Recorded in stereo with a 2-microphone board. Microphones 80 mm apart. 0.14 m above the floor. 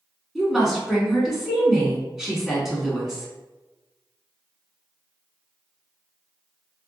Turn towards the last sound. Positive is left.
turn(degrees=-5)  # may be behind; listen again after turning